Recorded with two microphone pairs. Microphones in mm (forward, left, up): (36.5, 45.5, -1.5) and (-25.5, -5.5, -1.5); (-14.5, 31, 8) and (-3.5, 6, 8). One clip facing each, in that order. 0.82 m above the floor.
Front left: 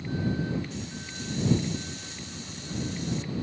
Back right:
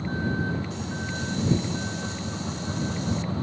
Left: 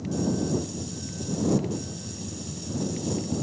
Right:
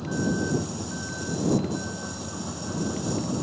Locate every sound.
0.0 s a vehicle: 100° right